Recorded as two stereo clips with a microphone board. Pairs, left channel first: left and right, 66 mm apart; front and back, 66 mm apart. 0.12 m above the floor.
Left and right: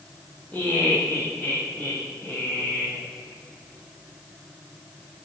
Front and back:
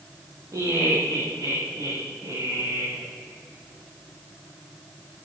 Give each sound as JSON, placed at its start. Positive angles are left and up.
{"t": 0.5, "sound": "laughter", "azimuth_deg": 155, "distance_m": 7.0}